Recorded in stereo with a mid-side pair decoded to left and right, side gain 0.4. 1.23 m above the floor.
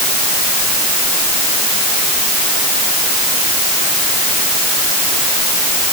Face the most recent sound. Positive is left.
No sound to turn to.